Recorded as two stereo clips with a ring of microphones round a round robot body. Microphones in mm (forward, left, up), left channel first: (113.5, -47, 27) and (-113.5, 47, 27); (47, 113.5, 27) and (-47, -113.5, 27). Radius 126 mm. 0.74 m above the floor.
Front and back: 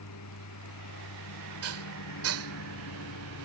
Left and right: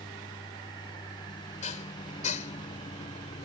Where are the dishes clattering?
130° left.